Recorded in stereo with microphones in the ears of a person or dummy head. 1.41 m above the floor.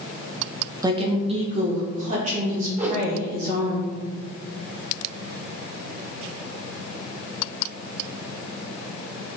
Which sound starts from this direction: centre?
A whoosh, at 2.8 s.